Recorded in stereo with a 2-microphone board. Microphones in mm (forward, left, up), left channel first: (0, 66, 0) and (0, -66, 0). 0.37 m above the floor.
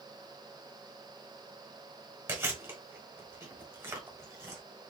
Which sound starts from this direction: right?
Chewing, at 2.3 s.